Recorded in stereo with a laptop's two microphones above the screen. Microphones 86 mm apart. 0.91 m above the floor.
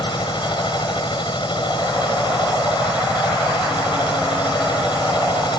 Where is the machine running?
65° left (ahead or behind).